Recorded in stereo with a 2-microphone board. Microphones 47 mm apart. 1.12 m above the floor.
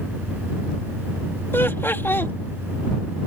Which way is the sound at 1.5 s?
55° left (ahead or behind).